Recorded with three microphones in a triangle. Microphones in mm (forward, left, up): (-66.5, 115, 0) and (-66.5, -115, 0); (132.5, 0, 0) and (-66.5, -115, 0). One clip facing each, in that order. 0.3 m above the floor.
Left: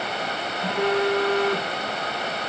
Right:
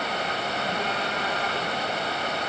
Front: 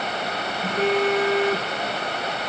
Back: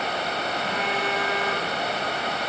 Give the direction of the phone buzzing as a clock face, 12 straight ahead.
9 o'clock.